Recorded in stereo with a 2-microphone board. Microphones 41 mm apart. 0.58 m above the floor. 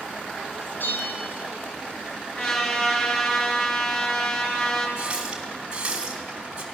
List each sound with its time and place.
0.8 s a bell: 70° left (ahead or behind), 4 m
2.4 s a trumpet: 35° left (ahead or behind), 8 m
5.0 s a running tap: 25° right (ahead or behind), 3.5 m